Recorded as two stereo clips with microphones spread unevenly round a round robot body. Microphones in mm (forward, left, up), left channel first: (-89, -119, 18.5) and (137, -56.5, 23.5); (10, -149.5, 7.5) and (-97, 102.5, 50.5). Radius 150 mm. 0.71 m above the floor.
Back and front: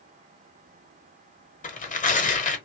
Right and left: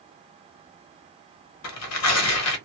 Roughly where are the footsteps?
No footsteps in this recording.